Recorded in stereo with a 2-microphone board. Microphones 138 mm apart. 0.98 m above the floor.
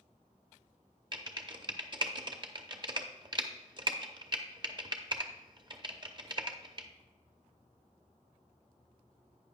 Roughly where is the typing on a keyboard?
Right.